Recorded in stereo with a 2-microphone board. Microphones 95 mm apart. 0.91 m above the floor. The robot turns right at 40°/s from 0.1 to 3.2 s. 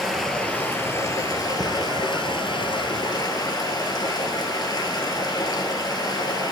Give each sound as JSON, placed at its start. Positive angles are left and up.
{"t": 0.0, "sound": "running water", "azimuth_deg": 0, "distance_m": 1.6}